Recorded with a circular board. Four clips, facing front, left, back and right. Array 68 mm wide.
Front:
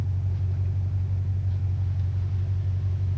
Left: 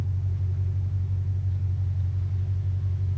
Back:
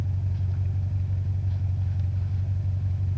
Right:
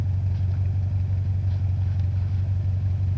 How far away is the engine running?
About 1.5 m.